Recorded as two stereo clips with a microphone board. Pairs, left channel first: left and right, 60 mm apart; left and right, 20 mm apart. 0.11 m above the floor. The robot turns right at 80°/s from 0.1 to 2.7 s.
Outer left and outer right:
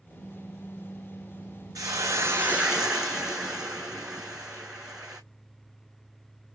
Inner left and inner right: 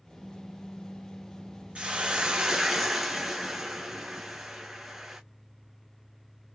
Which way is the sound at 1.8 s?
90° right.